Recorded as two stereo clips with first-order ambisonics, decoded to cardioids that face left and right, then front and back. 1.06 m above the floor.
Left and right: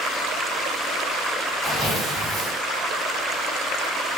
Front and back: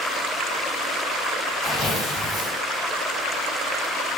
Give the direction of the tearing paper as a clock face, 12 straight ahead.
11 o'clock.